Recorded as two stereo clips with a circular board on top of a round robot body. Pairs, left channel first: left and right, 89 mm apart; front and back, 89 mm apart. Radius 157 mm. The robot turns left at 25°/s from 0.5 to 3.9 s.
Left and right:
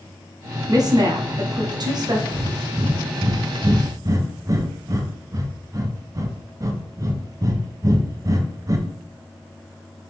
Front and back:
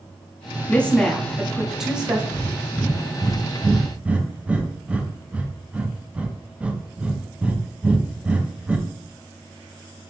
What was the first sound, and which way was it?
A woman speaking, 70° right.